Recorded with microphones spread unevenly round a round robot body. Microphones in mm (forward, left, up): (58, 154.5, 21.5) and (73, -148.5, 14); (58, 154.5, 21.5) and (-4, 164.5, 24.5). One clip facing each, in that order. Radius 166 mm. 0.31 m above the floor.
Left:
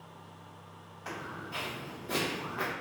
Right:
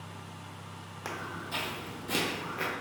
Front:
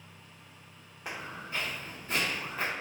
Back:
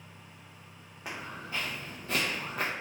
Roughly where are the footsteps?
Right.